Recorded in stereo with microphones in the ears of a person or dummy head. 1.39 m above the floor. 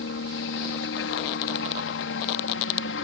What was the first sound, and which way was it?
A helicopter, 65° left (ahead or behind).